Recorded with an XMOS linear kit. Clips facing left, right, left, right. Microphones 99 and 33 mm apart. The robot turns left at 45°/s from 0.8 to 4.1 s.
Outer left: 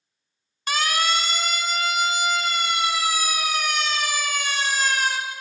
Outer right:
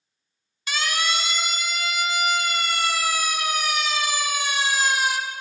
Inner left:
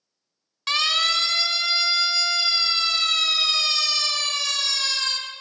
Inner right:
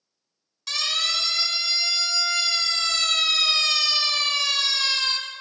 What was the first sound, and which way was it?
A siren, 45° left (ahead or behind).